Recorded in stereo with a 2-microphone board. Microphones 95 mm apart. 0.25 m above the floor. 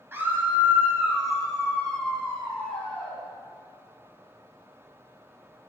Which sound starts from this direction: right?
A scream, at 0.1 s.